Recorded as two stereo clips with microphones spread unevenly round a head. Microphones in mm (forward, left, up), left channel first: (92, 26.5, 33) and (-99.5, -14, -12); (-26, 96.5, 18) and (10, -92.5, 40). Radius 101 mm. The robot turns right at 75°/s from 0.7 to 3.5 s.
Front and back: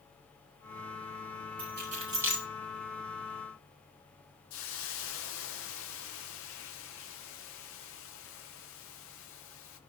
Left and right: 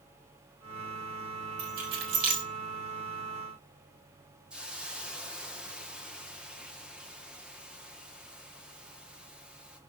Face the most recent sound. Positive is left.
turn(degrees=5)